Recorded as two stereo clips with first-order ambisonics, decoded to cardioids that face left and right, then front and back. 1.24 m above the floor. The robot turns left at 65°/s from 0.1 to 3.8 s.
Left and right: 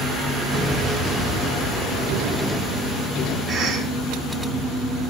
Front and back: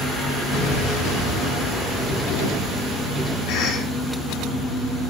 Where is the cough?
20° right, 1.2 m; by 3.9 s 40° right, 1.2 m.